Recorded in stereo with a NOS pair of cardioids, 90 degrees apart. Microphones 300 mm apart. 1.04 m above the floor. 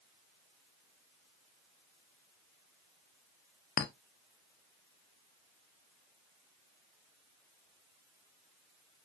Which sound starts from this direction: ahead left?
A clink, at 3.8 s.